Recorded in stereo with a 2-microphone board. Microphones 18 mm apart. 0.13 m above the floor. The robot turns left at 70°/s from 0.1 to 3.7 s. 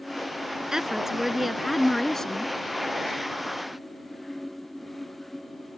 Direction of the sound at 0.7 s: 115° right.